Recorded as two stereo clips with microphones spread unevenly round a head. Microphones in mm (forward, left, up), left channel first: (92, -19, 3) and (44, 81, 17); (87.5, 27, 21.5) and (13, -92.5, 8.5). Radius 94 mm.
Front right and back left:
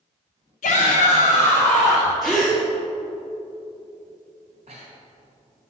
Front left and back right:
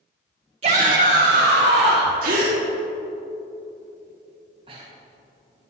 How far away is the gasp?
About 1.2 m.